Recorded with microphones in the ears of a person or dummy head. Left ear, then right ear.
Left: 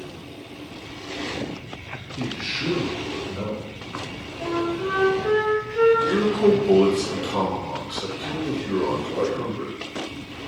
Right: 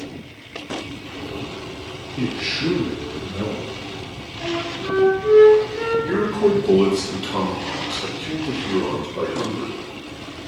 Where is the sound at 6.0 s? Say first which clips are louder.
Even; 15° right (ahead or behind), 1.2 m.